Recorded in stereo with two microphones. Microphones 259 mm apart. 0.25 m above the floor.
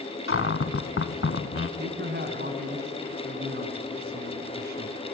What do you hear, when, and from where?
0.3 s a cupboard door: 55° left (ahead or behind), 0.7 m
1.8 s a man speaking: 40° right (ahead or behind), 2 m